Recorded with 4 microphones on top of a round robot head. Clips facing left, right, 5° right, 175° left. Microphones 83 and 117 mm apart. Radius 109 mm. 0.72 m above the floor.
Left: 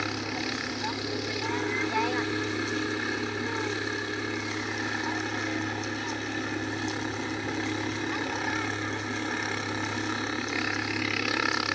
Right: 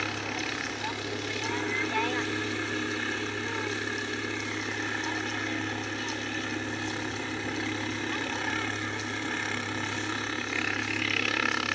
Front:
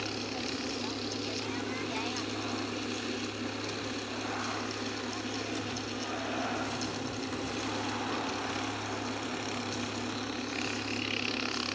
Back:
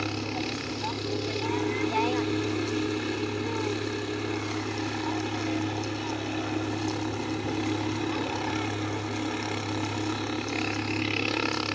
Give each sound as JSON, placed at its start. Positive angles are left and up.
{"t": 0.0, "sound": "a helicopter", "azimuth_deg": 170}